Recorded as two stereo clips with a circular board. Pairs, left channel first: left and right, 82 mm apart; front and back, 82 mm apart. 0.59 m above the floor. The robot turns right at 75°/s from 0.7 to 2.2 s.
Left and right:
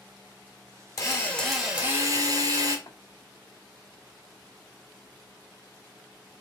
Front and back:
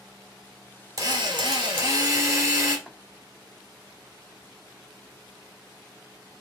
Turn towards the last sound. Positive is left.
turn(degrees=90)